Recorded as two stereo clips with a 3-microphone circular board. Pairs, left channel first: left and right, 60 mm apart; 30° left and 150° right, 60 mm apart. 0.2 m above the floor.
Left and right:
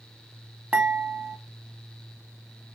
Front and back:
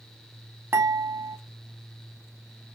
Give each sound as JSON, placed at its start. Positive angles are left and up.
{"t": 0.7, "sound": "dishes clattering", "azimuth_deg": -145, "distance_m": 0.8}